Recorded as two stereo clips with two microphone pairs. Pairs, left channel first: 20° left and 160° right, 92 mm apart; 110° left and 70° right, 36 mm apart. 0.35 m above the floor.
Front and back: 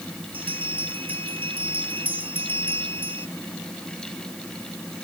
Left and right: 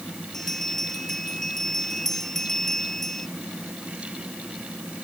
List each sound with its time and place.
0.3 s a bell: 170° right